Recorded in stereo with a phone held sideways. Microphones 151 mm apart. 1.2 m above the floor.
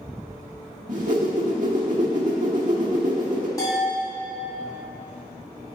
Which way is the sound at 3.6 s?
20° left (ahead or behind).